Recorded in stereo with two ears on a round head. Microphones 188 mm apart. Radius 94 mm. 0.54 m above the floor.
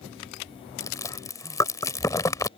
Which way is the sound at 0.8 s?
15° left (ahead or behind).